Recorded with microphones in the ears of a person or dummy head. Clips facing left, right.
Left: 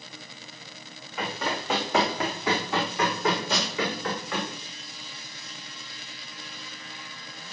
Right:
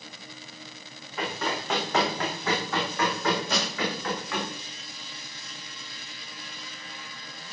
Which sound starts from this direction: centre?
Running footsteps, at 1.2 s.